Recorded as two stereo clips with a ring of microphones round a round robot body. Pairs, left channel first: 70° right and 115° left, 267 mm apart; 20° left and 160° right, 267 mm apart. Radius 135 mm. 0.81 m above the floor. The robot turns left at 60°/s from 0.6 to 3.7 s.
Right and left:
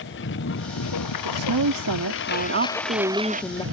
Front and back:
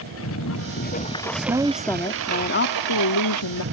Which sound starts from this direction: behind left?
A woman speaking, at 1.2 s.